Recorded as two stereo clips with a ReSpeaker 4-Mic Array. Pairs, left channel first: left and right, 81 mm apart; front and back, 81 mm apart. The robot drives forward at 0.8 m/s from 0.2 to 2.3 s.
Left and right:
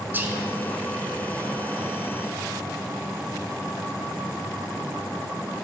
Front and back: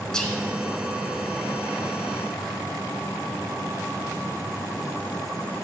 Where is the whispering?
70° right, 1.4 m; by 0.4 s 85° right, 1.4 m.